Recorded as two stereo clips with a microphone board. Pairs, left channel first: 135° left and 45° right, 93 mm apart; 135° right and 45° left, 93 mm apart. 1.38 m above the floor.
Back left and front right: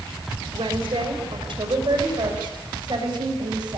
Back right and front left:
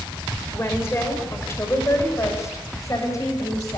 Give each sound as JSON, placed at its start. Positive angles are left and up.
{"t": 0.5, "sound": "a woman speaking", "azimuth_deg": -70, "distance_m": 5.0}